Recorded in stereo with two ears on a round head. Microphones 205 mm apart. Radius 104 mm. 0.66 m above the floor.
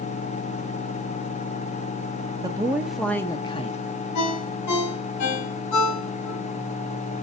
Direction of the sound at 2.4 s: 15° right (ahead or behind).